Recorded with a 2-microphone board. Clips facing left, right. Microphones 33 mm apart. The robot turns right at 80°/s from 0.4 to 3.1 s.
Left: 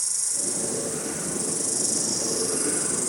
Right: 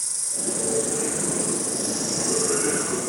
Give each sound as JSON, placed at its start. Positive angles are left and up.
{"t": 0.0, "sound": "an insect", "azimuth_deg": -140, "distance_m": 1.3}